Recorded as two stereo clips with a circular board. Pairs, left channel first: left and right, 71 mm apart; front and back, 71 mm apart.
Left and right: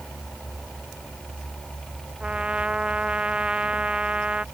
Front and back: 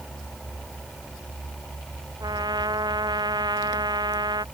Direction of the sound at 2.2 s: 165° right.